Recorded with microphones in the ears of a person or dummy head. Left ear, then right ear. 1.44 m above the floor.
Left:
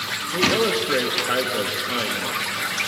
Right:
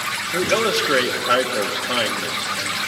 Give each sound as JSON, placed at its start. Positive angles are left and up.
{"t": 0.3, "sound": "a man speaking", "side_deg": -20, "distance_m": 1.8}